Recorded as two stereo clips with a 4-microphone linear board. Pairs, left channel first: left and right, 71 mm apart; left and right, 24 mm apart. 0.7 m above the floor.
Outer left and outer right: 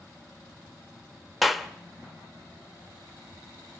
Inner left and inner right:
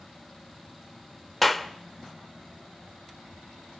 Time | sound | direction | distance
1.4 | a clap | centre (ahead or behind) | 0.9 m